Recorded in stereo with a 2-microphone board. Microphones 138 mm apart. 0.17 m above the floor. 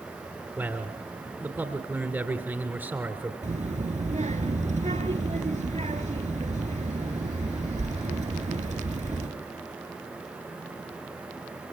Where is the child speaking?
60° right (ahead or behind), 2 m.